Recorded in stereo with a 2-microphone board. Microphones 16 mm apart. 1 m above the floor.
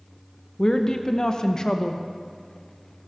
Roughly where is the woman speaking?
Left.